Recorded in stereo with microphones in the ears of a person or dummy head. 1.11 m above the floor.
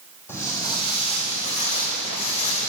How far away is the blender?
I don't hear a blender.